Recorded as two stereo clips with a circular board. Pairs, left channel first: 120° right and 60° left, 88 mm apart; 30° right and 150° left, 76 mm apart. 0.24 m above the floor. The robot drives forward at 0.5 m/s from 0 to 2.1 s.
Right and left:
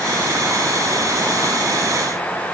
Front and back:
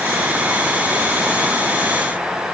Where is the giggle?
No giggle in this recording.